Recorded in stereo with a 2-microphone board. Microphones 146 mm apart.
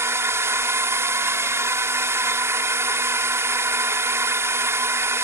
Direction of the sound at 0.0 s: 20° right (ahead or behind).